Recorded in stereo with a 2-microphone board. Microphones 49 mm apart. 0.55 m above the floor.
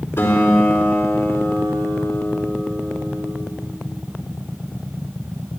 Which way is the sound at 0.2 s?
50° left (ahead or behind).